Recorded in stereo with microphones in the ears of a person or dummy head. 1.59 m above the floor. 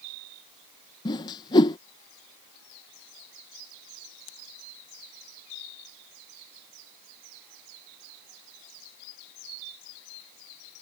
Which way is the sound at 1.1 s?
25° left (ahead or behind).